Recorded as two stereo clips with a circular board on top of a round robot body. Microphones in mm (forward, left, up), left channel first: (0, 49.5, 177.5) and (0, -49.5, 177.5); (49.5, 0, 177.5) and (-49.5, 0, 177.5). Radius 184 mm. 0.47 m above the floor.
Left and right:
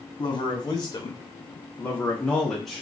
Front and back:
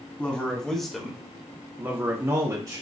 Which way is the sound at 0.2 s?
70° left.